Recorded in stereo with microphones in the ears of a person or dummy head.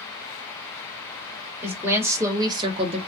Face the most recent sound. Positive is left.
turn(degrees=-35)  # may be behind; listen again after turning